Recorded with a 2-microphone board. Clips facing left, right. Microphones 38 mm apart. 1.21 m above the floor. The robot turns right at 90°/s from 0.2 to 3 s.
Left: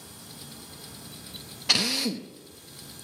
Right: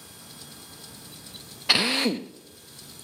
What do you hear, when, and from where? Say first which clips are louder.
1.7 s a drill: right 4 dB; 155° right, 0.6 m; by 2.3 s 100° right, 0.6 m